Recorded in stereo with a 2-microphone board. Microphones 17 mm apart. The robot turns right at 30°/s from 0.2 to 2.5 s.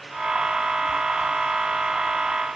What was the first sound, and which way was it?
Only background noise.